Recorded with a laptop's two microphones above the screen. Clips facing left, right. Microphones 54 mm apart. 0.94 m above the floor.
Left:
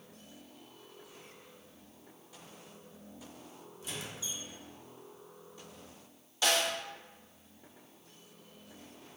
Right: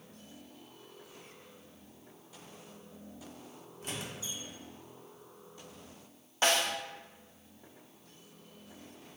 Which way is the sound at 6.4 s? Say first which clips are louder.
Right 1 dB; 35° right (ahead or behind).